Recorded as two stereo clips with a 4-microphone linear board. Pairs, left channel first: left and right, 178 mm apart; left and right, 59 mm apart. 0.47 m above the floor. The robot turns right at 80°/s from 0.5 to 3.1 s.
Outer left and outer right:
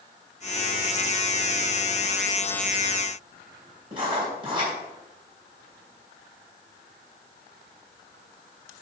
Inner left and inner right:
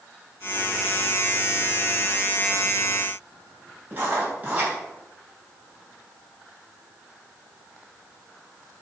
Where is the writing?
30° right (ahead or behind), 3 m.